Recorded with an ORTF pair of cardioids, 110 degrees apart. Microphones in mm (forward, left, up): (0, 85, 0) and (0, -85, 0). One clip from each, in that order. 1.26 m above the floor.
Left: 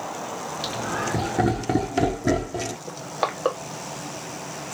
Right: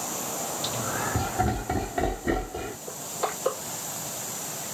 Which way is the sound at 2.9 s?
60° left.